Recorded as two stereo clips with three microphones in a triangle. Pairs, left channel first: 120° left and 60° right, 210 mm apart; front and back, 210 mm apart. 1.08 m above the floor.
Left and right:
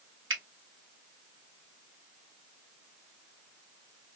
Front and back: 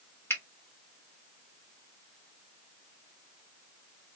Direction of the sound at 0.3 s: 80° right.